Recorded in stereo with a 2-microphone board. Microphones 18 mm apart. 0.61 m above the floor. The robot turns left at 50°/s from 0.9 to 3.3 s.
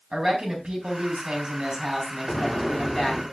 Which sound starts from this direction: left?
An explosion, at 2.3 s.